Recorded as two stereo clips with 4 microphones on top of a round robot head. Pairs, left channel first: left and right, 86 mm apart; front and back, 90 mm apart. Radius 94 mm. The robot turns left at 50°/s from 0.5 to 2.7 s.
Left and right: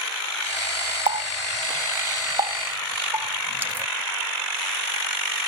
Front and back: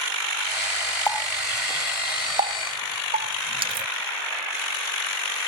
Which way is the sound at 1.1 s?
75° right.